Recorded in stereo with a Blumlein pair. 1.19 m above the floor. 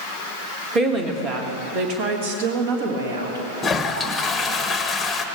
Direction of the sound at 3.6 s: 10° left.